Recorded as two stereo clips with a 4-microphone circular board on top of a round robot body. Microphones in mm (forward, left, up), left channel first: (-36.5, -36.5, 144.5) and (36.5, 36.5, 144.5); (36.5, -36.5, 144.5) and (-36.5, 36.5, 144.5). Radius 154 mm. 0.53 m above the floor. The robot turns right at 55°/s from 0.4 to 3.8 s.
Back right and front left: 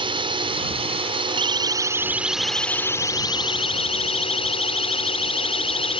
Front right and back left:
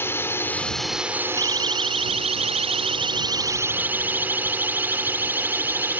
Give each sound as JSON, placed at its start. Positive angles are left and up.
{"t": 0.0, "sound": "a drone", "azimuth_deg": 20}
{"t": 1.4, "sound": "a siren", "azimuth_deg": 85}